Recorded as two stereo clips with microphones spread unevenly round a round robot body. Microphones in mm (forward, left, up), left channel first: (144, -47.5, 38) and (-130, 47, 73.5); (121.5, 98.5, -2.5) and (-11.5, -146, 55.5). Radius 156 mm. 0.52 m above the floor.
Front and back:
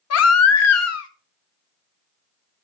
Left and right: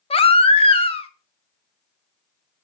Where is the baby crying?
Straight ahead, 0.9 m.